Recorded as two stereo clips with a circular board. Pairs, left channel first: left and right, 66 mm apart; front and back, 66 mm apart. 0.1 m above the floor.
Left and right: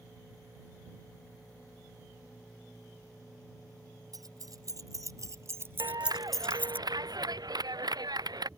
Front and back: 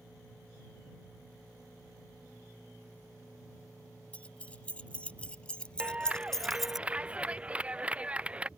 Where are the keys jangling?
70° right; by 6.8 s 100° left.